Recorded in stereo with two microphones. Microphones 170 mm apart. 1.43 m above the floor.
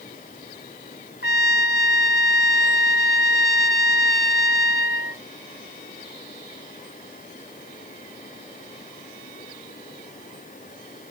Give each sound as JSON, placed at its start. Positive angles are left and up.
{"t": 1.2, "sound": "a trumpet", "side_deg": 85}